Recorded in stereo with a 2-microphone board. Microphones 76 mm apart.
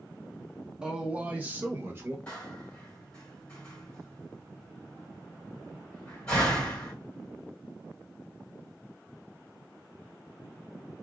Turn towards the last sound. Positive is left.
turn(degrees=15)  # may be behind; listen again after turning